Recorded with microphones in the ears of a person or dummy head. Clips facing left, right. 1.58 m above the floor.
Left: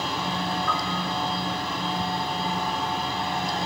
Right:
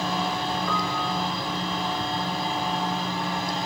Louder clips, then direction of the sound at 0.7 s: Right 1 dB; 25° right (ahead or behind).